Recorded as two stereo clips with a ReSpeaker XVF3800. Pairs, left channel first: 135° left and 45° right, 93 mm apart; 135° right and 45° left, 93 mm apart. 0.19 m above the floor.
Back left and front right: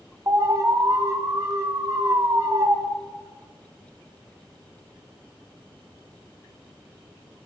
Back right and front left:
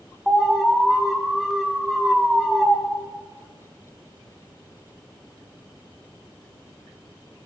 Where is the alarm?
40° right, 2.0 m.